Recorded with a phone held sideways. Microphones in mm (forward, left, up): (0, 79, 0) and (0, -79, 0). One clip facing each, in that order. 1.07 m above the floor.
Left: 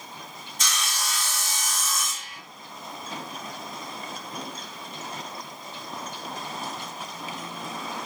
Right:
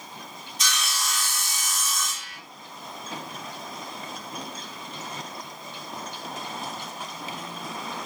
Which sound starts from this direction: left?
Sawing, at 0.6 s.